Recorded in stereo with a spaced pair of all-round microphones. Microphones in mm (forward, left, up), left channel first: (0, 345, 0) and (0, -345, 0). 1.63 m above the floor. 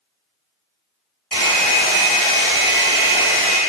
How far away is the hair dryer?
About 3 m.